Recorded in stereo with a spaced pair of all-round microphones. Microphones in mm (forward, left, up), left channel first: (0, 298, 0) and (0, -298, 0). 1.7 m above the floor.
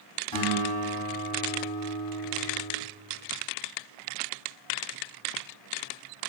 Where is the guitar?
50° left (ahead or behind), 1.6 m.